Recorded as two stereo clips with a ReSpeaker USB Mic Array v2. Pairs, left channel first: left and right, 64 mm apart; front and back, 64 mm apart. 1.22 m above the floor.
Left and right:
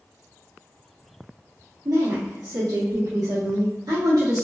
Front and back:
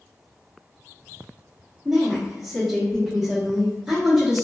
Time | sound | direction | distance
1.9 | a woman speaking | 95° right | 0.9 m